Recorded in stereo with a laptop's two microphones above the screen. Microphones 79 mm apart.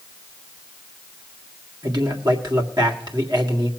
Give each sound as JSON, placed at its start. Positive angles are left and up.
{"t": 1.8, "sound": "a man speaking", "side_deg": -65, "distance_m": 1.9}